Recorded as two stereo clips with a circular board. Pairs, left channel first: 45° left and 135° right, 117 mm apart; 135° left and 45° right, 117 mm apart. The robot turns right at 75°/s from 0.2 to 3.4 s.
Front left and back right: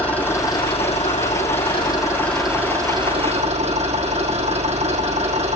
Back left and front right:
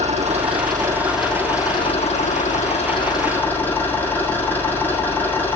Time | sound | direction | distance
0.0 | an engine running | 30° right | 6.5 m